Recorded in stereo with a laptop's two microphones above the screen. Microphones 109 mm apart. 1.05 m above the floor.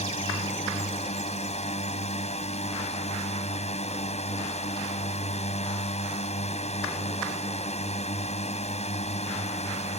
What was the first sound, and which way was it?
A drone, 80° left.